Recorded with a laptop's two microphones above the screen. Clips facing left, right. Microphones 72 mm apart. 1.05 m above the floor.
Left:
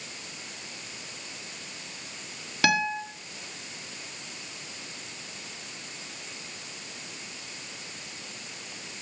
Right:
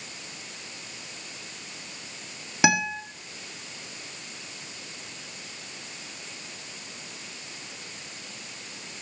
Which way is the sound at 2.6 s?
15° right (ahead or behind).